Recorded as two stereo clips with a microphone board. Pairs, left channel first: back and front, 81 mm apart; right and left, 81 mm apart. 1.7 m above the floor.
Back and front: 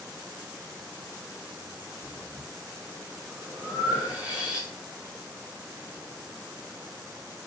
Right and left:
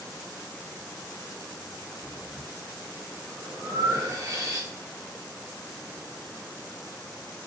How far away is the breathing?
About 1.1 m.